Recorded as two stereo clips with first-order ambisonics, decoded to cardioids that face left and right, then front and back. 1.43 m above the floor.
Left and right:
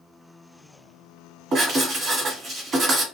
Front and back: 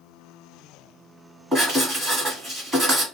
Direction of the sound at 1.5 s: 125° right.